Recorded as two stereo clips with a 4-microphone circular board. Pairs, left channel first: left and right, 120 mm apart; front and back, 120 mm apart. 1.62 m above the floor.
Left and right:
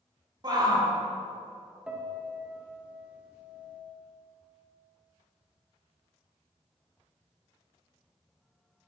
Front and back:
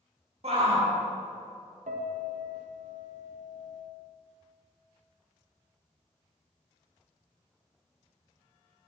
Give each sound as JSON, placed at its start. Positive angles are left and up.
{"t": 0.4, "sound": "a shout", "azimuth_deg": -145, "distance_m": 2.5}
{"t": 1.9, "sound": "a piano", "azimuth_deg": -170, "distance_m": 1.0}